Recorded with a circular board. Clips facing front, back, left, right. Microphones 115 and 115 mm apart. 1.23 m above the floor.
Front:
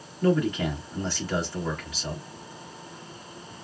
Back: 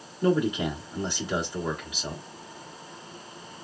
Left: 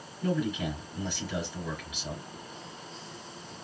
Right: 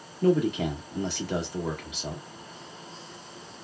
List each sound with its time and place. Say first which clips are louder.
0.2 s a man speaking: even, right 7 dB; 105° right, 1.8 m